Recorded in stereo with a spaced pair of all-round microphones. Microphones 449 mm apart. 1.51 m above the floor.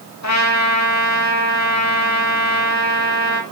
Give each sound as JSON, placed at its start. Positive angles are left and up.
{"t": 0.2, "sound": "a trumpet", "side_deg": 35, "distance_m": 2.0}